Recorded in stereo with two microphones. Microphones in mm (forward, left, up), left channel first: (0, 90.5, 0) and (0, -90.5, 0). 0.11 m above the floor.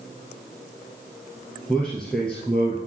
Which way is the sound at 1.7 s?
5° left (ahead or behind).